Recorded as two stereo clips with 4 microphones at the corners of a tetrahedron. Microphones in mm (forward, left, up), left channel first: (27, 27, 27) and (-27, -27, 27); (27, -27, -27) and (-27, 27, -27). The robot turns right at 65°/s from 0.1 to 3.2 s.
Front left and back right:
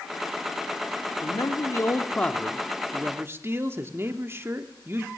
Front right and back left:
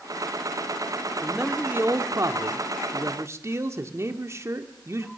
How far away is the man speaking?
About 1.4 m.